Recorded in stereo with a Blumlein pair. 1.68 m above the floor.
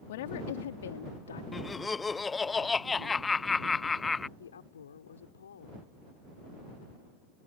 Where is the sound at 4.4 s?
65° left.